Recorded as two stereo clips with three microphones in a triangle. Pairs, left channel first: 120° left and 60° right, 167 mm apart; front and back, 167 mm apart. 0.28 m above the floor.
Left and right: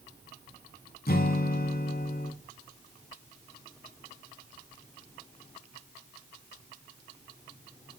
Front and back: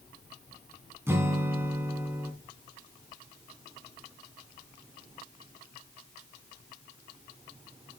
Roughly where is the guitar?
Left.